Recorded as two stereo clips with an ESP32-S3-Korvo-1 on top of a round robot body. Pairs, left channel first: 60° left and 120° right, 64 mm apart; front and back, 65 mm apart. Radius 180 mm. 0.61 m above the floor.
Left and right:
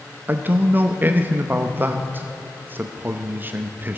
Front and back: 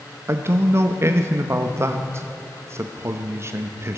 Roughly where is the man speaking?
Behind.